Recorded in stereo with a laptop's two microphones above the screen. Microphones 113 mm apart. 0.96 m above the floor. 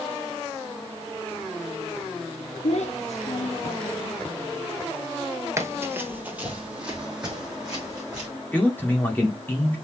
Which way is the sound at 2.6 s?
70° left (ahead or behind).